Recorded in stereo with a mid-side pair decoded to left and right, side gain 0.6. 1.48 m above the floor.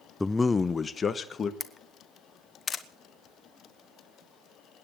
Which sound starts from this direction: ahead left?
A camera shutter, at 1.6 s.